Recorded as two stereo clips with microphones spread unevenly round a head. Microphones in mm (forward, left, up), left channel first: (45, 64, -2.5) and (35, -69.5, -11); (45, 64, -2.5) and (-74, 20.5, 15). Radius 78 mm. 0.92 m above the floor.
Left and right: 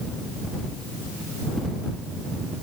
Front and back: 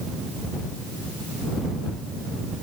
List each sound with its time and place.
Only background noise.